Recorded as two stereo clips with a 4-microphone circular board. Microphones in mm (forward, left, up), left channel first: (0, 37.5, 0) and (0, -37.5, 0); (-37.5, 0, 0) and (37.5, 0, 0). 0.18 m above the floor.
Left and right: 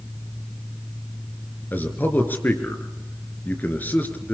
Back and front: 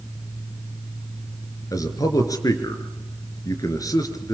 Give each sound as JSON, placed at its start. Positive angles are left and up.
{"t": 1.7, "sound": "a man speaking", "azimuth_deg": 150, "distance_m": 3.0}